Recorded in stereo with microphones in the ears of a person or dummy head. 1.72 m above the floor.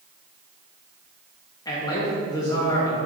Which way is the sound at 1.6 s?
20° left (ahead or behind).